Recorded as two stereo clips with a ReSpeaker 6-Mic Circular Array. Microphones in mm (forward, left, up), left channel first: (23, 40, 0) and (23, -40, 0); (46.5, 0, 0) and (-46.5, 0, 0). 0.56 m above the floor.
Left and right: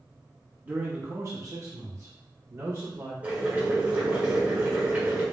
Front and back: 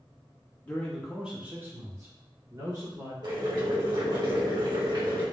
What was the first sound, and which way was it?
A man speaking, 50° right.